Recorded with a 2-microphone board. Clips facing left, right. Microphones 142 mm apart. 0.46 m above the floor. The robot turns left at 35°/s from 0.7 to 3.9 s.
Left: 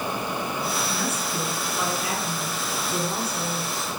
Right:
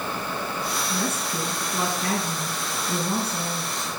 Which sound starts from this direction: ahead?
A woman speaking, at 0.9 s.